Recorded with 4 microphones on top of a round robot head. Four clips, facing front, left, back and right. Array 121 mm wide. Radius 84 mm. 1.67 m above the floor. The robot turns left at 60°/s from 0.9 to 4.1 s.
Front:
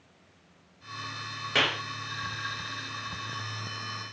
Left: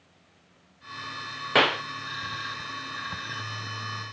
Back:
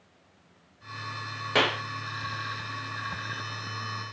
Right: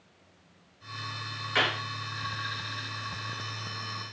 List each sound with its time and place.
1.6 s a clap: 115° left, 0.9 m; by 1.8 s 100° left, 0.9 m